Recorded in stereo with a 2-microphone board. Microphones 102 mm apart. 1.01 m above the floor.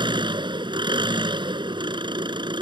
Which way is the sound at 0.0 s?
50° right (ahead or behind).